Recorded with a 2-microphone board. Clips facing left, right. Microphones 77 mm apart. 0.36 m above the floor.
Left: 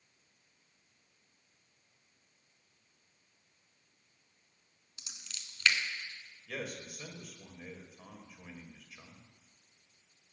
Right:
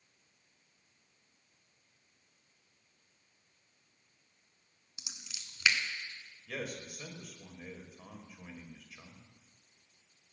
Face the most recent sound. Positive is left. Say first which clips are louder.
# right 1 dB
turn(degrees=0)  # may be behind; listen again after turning